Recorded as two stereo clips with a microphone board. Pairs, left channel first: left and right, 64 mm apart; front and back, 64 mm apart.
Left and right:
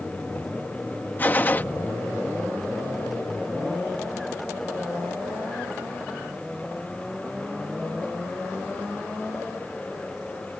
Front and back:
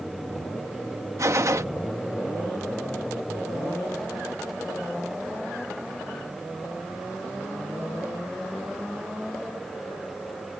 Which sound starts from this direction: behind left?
A gunshot, at 1.2 s.